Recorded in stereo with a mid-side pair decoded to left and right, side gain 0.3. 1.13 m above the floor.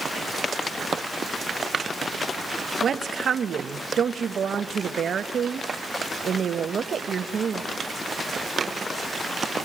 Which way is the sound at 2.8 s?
65° right.